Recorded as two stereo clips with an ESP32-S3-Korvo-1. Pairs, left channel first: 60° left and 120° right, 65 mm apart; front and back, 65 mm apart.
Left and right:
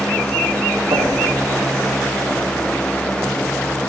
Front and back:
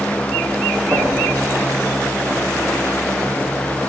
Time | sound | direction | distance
0.9 | knocking | 110° right | 5 m